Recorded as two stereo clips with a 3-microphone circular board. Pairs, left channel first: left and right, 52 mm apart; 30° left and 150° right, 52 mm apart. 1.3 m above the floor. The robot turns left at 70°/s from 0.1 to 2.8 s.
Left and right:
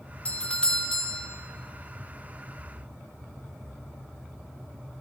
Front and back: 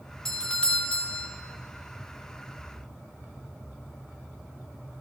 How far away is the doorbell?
About 0.7 m.